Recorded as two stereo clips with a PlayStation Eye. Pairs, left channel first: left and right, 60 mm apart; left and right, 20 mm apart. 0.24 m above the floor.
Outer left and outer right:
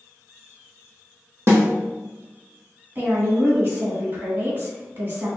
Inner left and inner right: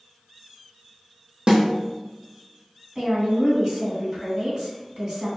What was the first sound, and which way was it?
A snare drum, 50° right (ahead or behind).